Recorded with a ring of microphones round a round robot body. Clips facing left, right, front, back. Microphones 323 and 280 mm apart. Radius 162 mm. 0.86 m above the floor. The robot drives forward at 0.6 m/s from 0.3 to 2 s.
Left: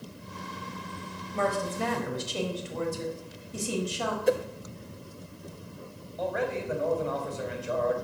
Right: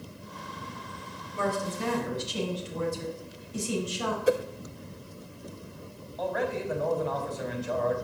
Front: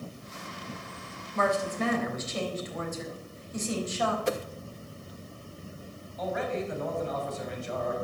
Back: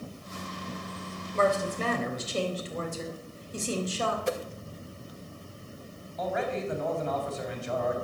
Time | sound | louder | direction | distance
1.3 | a woman speaking | left 1 dB, back 1 dB | 120° left | 4 m
4.3 | a whoosh | even, even | 5° right | 0.8 m
6.2 | a man speaking | even, even | 170° left | 4.5 m